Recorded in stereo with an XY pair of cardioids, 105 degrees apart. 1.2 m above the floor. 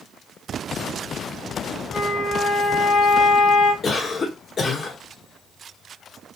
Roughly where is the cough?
Ahead left.